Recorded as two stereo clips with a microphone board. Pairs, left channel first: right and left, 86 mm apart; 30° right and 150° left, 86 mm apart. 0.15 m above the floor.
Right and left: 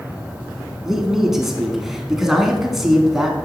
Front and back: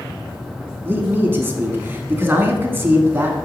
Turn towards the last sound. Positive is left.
turn(degrees=170)